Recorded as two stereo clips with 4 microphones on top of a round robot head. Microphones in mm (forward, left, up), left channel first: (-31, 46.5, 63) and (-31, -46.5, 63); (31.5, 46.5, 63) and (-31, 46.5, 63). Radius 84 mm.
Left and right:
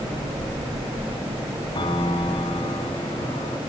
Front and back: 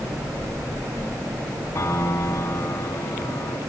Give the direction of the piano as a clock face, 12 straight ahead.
10 o'clock.